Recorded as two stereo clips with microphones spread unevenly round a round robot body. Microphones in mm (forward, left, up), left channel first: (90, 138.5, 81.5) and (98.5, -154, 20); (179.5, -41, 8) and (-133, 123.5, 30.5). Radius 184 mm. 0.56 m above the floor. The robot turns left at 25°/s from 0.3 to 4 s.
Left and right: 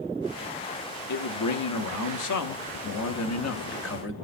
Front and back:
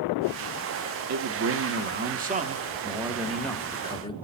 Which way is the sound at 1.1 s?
115° left.